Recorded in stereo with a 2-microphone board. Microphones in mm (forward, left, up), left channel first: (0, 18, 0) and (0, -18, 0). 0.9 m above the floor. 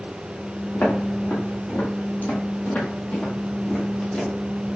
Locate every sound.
0.7 s footsteps: 65° left (ahead or behind), 2.5 m; by 4.3 s 20° left (ahead or behind), 1.4 m